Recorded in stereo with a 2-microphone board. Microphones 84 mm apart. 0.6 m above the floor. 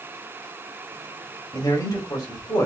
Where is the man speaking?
50° left (ahead or behind), 1.8 m.